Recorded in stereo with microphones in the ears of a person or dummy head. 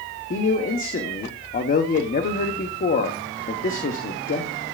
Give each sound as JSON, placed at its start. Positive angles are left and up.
{"t": 0.3, "sound": "a man speaking", "side_deg": 35, "distance_m": 1.0}